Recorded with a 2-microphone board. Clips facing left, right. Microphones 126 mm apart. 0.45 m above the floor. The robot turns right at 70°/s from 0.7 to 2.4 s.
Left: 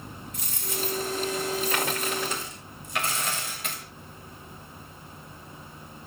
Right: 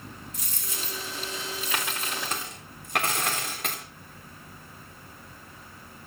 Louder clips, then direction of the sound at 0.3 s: Left 6 dB; 120° left.